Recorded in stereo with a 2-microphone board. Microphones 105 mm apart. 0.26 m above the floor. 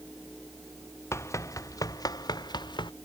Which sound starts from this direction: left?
Running footsteps, at 1.1 s.